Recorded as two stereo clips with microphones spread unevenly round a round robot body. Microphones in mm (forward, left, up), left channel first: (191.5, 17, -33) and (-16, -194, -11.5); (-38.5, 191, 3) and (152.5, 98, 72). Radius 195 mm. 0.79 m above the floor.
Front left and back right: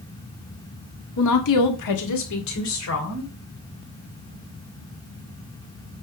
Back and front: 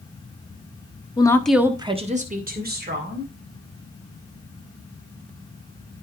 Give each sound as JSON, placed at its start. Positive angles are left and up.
{"t": 1.2, "sound": "a woman speaking", "azimuth_deg": 90, "distance_m": 1.4}